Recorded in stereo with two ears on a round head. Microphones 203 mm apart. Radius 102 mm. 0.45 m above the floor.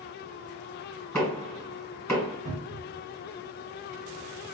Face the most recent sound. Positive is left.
turn(degrees=-30)  # may be behind; listen again after turning